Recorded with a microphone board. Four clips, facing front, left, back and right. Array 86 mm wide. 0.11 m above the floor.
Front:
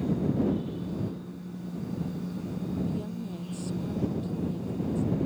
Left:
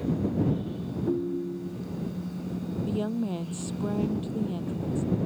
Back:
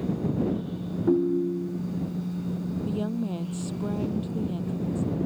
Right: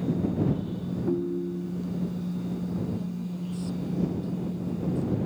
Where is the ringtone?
Straight behind.